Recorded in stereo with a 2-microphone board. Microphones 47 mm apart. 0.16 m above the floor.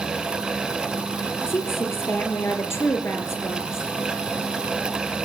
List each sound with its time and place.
1.5 s a woman speaking: 55° left (ahead or behind), 3.5 m